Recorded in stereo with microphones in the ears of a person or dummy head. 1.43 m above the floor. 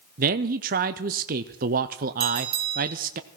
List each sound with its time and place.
0.2 s a man speaking: 45° right (ahead or behind), 0.5 m
2.2 s a bell: 30° right (ahead or behind), 4.5 m